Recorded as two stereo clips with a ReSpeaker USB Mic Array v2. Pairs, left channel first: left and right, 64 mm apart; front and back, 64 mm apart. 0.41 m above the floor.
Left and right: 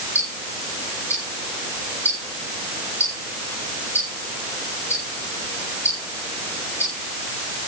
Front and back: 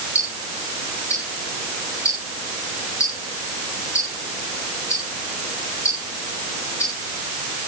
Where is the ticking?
40° left, 8 m.